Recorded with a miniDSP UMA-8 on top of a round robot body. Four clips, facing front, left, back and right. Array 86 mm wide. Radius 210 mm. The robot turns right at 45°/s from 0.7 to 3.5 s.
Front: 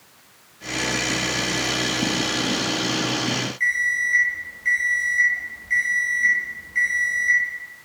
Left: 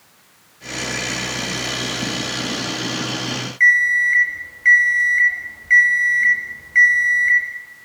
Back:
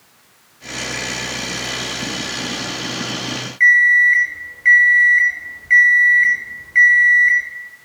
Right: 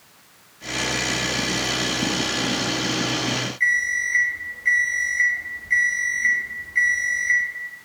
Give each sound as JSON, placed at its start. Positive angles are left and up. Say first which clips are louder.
{"t": 3.6, "sound": "an alarm clock", "louder": "left 9 dB, back 14 dB", "azimuth_deg": 135, "distance_m": 2.0}